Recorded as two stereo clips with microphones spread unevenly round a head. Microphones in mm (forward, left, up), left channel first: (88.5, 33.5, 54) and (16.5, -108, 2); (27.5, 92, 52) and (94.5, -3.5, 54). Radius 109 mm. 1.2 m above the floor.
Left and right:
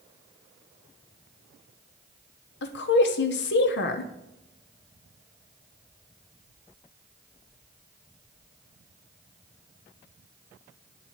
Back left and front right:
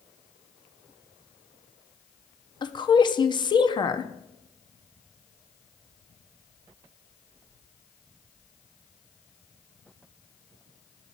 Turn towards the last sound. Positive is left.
turn(degrees=80)